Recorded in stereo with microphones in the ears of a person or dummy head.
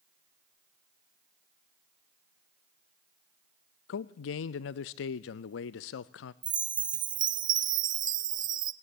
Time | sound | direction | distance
3.9 | a man speaking | 65° left (ahead or behind) | 0.5 m
6.4 | a chime | 20° right (ahead or behind) | 0.6 m